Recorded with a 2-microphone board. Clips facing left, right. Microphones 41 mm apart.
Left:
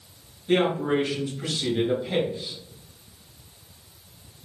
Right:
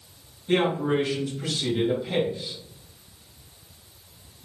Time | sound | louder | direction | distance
0.5 | a man speaking | left 1 dB | 10° left (ahead or behind) | 2.5 m